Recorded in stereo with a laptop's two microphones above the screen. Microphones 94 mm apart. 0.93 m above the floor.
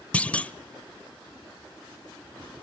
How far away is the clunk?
About 0.7 m.